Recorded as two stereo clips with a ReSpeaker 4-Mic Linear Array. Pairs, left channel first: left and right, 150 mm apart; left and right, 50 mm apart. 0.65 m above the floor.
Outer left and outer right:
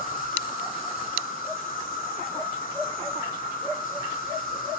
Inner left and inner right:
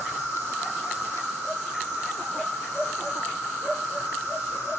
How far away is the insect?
About 5 m.